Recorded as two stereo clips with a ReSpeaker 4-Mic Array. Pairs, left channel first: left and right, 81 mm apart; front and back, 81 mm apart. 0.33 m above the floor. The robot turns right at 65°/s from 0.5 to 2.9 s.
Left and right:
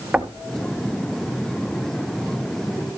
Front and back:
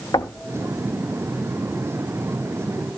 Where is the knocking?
15° right, 1.6 m.